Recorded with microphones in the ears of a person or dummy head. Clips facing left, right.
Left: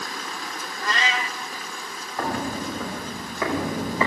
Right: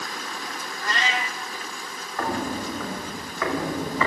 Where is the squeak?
No squeak in this recording.